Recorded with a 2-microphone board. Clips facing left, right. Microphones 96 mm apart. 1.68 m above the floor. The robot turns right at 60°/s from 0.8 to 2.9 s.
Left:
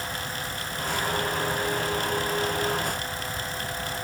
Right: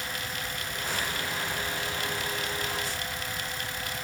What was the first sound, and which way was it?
Only background noise.